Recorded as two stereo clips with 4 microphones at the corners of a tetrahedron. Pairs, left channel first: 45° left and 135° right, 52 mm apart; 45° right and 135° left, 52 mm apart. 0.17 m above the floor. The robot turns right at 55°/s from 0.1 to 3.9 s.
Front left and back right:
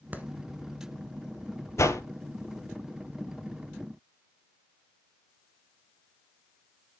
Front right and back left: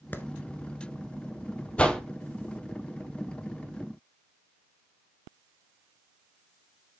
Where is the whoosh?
25° left, 1.1 m; by 2.0 s 35° left, 1.1 m.